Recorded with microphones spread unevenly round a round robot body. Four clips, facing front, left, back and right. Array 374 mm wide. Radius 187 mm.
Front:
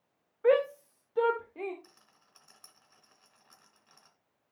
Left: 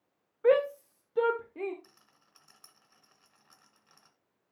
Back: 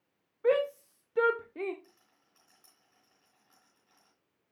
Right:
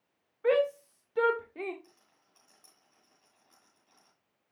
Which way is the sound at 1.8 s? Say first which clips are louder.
Even, front 3 dB; 50° left.